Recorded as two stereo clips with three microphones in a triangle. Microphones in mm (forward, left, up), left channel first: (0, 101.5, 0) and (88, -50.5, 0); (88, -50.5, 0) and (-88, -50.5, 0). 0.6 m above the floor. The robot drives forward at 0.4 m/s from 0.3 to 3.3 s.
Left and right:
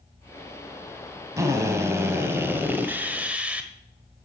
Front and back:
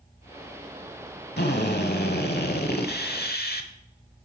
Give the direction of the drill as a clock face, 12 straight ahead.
12 o'clock.